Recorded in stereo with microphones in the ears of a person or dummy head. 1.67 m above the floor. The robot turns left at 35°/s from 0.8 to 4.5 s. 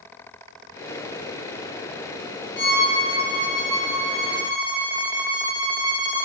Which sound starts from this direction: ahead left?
A violin, at 2.6 s.